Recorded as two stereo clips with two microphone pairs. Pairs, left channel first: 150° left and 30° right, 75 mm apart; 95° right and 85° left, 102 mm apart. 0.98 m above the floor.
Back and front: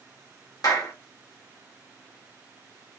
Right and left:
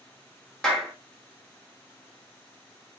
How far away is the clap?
About 1.5 m.